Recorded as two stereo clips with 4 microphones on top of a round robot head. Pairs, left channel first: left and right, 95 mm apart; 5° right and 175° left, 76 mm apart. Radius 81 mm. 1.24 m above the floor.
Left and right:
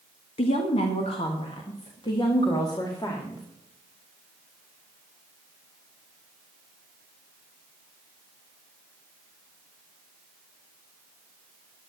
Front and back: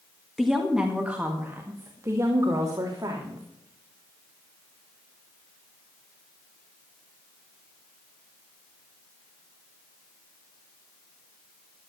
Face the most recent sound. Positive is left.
turn(degrees=140)